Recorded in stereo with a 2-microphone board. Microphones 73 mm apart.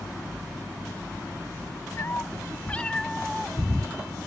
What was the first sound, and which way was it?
A cat meowing, 40° left (ahead or behind).